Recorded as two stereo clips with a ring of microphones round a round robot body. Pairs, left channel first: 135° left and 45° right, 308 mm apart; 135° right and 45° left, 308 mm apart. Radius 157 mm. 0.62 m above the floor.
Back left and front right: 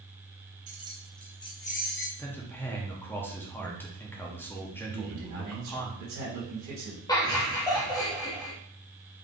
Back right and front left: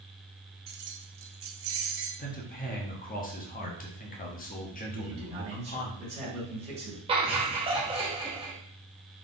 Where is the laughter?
80° left, 0.8 m.